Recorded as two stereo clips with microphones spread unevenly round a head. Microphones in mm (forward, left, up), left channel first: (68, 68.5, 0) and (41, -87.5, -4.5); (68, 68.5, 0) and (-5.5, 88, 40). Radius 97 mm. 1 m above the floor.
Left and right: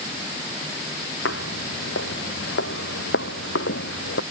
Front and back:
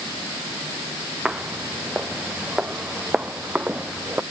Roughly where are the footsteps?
Left.